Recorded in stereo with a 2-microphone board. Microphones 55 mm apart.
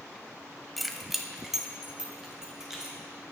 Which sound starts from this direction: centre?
Keys jangling, at 0.8 s.